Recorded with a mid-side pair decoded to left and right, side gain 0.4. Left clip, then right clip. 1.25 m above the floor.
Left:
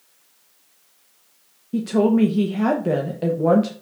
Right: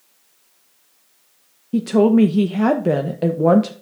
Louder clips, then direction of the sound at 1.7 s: Right 4 dB; 35° right.